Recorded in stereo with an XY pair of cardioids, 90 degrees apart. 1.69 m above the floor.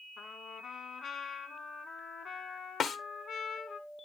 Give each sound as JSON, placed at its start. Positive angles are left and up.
{"t": 0.2, "sound": "a trumpet", "azimuth_deg": 60, "distance_m": 1.9}
{"t": 2.8, "sound": "a snare drum", "azimuth_deg": 70, "distance_m": 1.3}